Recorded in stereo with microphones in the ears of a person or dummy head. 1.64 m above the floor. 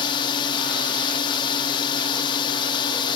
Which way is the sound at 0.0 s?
30° left (ahead or behind).